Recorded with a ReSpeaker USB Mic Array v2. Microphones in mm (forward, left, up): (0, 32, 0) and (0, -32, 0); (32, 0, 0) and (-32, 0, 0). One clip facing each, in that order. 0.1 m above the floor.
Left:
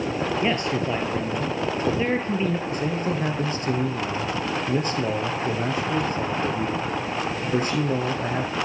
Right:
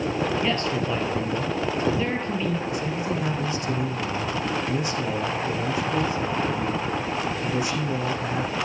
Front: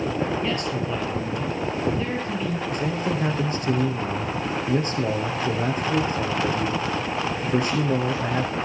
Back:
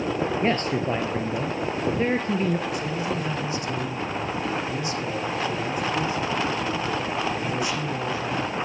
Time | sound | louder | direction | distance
0.4 | a man speaking | left 1 dB, back 2 dB | 150° left | 1.8 m
2.7 | a man speaking | left 1 dB, front 2 dB | 45° left | 5 m